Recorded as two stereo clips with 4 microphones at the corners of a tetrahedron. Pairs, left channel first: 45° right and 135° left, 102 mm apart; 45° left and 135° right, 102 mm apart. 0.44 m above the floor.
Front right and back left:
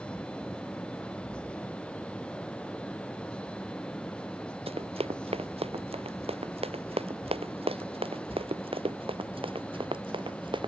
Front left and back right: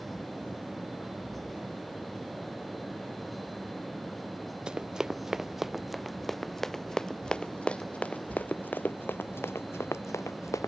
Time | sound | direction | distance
4.7 | running footsteps | 145° left | ?